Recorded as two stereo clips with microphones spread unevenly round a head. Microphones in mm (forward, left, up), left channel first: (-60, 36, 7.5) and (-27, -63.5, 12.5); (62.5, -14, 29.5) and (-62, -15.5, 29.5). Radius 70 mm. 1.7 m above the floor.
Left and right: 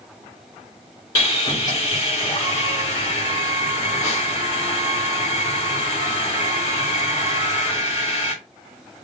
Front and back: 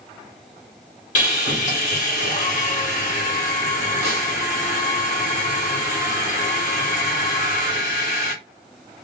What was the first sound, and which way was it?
Sawing, 40° left.